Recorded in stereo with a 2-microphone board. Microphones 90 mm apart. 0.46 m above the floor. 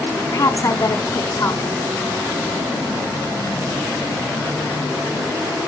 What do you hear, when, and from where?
0.3 s a woman speaking: 35° left (ahead or behind), 1.3 m